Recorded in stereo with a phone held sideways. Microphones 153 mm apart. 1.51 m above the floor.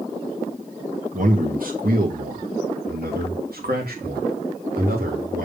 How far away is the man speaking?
About 1.5 m.